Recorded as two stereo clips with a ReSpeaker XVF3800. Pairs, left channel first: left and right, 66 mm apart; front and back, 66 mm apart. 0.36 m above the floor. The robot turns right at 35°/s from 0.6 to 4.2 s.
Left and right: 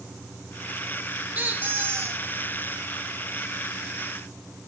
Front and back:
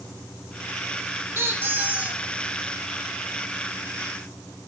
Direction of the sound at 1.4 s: 145° right.